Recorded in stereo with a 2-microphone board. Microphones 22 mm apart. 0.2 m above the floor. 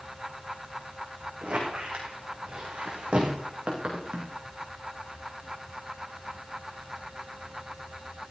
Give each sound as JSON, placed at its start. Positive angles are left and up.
{"t": 1.4, "sound": "a squeak", "side_deg": -60, "distance_m": 5.0}